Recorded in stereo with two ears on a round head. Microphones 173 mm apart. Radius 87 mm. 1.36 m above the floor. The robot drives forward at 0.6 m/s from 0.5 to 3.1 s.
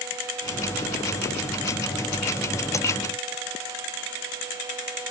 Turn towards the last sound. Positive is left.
No sound to turn to.